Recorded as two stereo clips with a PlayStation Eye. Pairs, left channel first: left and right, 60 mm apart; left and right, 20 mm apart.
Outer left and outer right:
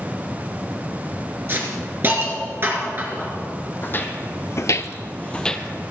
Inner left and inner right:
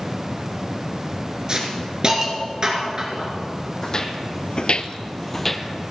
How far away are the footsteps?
About 1.5 m.